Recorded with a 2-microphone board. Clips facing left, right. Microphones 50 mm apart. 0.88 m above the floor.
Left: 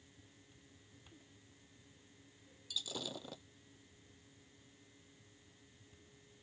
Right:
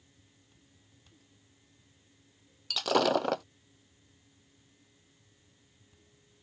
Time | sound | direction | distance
2.7 | breaking glass | 85° right | ?